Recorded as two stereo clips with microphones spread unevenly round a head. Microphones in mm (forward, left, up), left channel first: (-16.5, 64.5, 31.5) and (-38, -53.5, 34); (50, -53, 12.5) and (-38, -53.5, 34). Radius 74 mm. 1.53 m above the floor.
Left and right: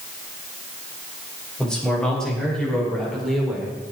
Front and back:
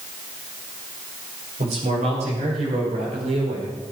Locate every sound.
1.6 s a man speaking: 165° left, 9 m; by 3.8 s 170° left, 6.5 m